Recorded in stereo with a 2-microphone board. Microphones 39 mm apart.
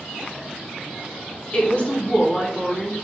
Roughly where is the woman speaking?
Left.